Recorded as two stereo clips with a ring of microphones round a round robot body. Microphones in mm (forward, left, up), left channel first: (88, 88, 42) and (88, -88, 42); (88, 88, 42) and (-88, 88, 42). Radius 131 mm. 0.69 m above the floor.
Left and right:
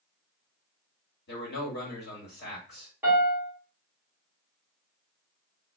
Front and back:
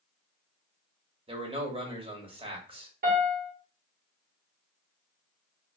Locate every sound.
1.3 s a man speaking: 120° left, 1.2 m
3.0 s a piano: 170° right, 1.1 m